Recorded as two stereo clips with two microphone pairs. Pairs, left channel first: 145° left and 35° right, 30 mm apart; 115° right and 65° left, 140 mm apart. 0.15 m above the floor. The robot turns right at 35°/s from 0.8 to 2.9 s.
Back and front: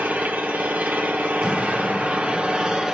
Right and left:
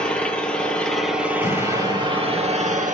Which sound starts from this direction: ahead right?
An engine running, at 0.0 s.